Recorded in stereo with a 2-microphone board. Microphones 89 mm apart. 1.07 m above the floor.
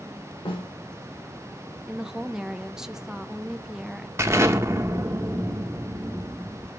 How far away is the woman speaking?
About 0.5 m.